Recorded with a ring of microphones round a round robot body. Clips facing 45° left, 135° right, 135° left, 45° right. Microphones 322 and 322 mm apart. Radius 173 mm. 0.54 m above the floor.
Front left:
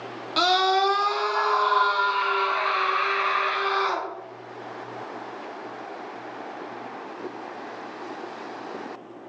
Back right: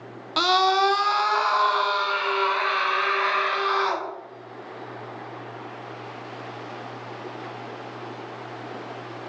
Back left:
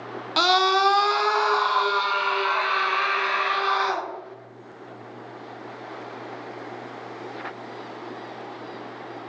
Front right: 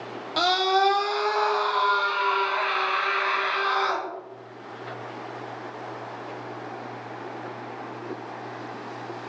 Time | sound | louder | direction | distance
0.4 | a scream | even, back left 1 dB | 150° left | 1.1 m